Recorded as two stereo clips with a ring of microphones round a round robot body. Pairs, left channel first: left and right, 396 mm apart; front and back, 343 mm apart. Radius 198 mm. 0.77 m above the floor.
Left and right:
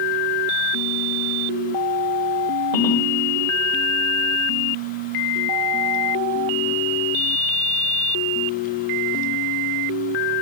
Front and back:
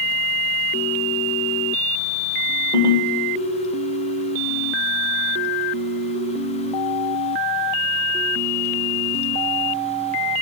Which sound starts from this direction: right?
A ringtone, at 2.7 s.